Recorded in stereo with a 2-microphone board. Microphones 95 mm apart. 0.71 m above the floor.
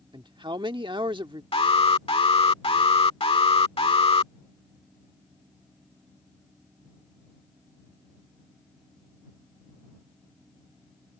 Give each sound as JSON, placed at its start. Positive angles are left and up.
{"t": 0.1, "sound": "a man speaking", "side_deg": -60}
{"t": 1.5, "sound": "an alarm", "side_deg": 75}